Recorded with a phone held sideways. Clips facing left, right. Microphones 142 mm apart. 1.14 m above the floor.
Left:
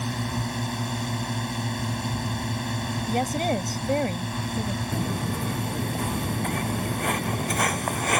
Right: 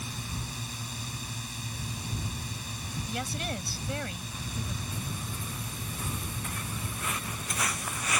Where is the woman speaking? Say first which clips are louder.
Left 11 dB; 50° left (ahead or behind).